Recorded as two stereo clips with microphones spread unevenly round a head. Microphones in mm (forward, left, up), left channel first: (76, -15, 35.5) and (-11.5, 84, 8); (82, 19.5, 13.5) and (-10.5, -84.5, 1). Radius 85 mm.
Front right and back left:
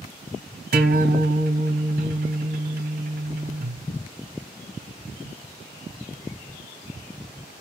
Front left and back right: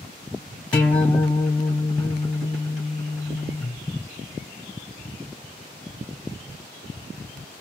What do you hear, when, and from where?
0.7 s a guitar: 125° left, 2 m